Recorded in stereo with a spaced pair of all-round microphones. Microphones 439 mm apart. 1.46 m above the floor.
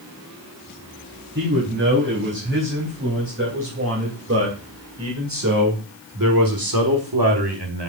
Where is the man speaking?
25° right (ahead or behind), 4.5 m; by 7.9 s 70° right (ahead or behind), 1.4 m.